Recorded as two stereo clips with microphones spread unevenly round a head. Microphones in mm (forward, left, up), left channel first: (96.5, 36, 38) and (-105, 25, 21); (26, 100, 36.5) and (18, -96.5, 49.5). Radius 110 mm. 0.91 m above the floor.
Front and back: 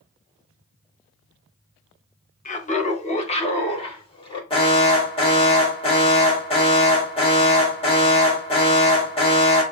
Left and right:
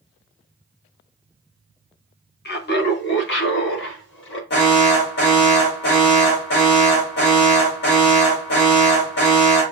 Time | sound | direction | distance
2.5 | laughter | 55° left | 1.3 m
4.5 | an alarm | 65° left | 3 m